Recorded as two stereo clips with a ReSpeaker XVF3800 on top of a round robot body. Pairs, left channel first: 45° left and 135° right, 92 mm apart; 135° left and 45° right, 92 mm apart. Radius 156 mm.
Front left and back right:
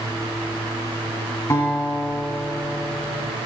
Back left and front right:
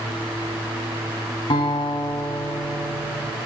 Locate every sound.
1.5 s a guitar: 100° left, 2 m